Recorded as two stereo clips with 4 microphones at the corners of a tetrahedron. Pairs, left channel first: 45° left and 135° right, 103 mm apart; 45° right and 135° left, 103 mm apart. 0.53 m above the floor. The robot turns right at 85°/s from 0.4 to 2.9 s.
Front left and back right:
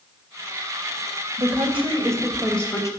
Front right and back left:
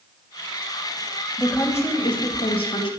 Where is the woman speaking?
140° right, 2.5 m; by 2.9 s 10° right, 2.5 m.